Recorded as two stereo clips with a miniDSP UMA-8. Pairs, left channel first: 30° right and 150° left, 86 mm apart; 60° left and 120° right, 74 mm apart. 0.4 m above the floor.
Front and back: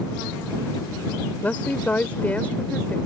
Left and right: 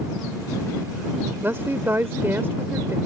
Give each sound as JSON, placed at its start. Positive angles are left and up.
{"t": 1.4, "sound": "a woman speaking", "azimuth_deg": -90}